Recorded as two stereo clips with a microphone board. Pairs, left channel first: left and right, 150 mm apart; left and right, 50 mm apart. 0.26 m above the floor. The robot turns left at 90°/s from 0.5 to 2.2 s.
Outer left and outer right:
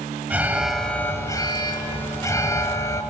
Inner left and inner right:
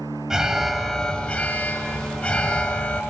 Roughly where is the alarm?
Centre.